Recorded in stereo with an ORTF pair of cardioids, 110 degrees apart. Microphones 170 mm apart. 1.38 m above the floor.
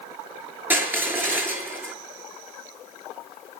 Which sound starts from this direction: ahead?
Crushing, at 0.7 s.